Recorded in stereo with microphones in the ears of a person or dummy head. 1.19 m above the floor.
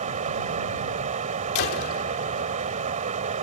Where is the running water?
45° right (ahead or behind).